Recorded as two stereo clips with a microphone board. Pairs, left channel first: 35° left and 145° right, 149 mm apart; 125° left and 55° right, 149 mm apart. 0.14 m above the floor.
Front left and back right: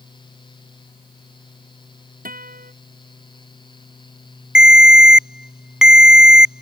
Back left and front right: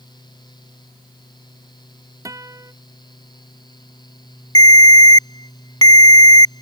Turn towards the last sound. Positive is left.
turn(degrees=135)